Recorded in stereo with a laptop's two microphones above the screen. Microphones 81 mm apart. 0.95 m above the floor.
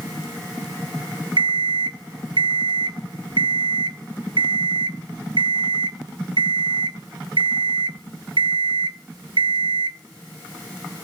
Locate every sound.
1.4 s an alarm clock: 75° right (ahead or behind), 0.6 m